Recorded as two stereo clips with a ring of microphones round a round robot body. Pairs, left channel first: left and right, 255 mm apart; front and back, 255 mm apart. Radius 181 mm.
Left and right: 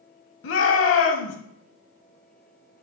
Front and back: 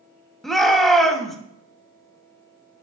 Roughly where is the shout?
Left.